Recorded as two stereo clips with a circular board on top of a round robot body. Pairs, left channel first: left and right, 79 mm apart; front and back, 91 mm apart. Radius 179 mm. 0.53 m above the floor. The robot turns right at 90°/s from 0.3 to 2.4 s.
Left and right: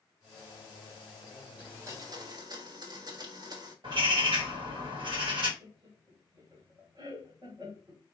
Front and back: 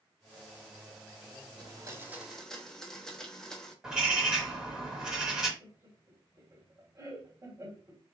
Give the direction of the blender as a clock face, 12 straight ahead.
5 o'clock.